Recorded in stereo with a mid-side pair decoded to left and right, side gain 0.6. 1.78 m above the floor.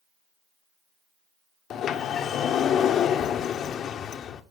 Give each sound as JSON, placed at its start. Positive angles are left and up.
{"t": 1.7, "sound": "a sliding door", "azimuth_deg": 50, "distance_m": 1.0}